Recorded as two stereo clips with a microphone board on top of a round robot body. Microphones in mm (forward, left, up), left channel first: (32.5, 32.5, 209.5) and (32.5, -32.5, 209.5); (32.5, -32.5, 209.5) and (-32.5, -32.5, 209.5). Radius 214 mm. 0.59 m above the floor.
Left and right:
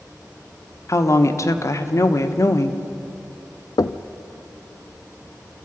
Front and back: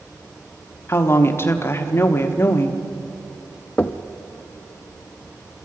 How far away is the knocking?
About 0.7 m.